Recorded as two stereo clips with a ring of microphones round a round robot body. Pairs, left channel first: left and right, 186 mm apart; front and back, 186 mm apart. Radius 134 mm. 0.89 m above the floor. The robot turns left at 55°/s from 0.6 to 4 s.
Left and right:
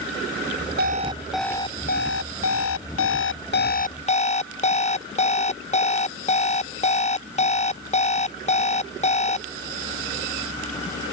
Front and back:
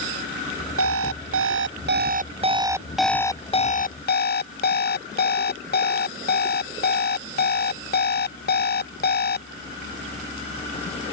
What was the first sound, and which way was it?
An alarm clock, 145° right.